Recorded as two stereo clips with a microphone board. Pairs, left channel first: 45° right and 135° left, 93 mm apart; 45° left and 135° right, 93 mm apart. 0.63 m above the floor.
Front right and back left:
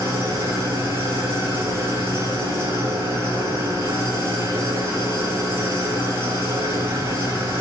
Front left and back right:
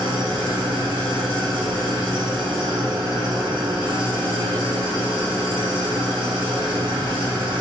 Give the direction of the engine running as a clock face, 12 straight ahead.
5 o'clock.